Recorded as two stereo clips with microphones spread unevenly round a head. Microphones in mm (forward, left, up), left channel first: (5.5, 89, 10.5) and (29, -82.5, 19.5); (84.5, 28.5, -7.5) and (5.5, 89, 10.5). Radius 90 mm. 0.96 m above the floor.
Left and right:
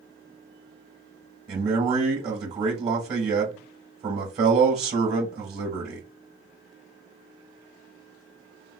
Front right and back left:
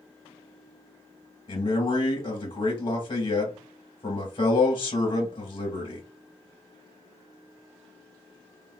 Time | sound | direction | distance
1.5 | a man speaking | 35° right | 1.1 m